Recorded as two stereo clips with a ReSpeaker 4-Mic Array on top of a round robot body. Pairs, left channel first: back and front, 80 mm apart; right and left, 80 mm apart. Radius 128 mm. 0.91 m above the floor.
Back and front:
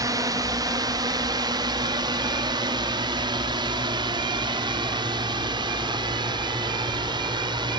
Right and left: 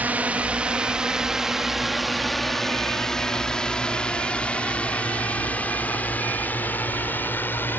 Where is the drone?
25° left; by 7.8 s 25° right.